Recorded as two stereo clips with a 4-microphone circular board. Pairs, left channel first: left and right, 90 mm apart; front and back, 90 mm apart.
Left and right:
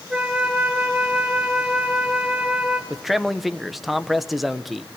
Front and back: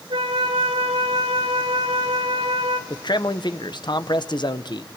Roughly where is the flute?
Behind.